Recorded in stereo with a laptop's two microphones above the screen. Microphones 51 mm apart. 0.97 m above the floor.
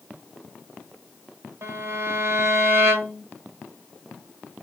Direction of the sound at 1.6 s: 60° right (ahead or behind).